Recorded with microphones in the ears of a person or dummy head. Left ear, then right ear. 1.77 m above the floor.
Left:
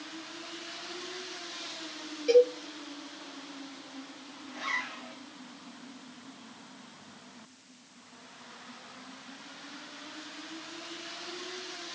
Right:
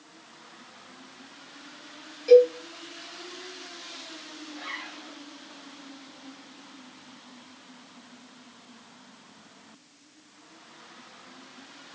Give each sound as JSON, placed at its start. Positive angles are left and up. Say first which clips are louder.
{"t": 2.3, "sound": "a cowbell", "louder": "right 6 dB", "side_deg": -10, "distance_m": 3.5}
{"t": 4.5, "sound": "a zipper", "louder": "left 5 dB", "side_deg": 35, "distance_m": 3.5}